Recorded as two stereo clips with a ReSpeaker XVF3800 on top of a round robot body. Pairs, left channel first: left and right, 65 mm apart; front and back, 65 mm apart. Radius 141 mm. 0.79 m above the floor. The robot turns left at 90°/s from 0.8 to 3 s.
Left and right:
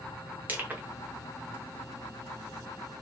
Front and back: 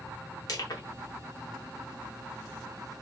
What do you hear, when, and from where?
0.5 s crushing: 25° right, 0.7 m